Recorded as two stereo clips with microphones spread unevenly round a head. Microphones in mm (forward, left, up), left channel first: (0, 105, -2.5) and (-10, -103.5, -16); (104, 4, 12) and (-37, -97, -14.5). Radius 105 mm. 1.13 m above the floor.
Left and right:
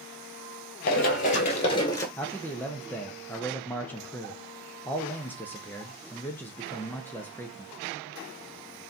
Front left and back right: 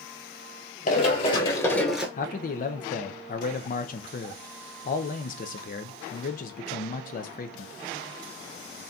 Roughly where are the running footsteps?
Ahead left.